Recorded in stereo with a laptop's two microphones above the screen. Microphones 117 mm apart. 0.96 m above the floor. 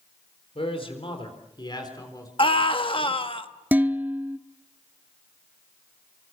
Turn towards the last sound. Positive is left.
turn(degrees=-15)  # may be behind; listen again after turning